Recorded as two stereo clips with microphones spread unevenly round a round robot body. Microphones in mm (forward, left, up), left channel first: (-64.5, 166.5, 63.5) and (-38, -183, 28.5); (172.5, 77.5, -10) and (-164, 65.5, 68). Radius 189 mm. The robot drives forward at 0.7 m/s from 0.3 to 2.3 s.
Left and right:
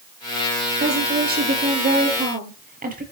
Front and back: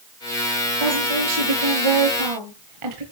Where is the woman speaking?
150° right, 8.5 m.